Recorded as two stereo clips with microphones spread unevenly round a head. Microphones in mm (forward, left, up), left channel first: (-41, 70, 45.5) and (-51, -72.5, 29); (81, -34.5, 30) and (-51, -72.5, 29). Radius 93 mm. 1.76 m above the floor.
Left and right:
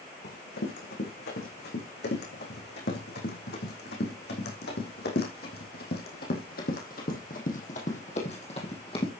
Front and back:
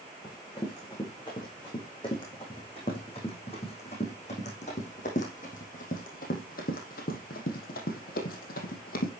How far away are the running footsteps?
About 6.5 m.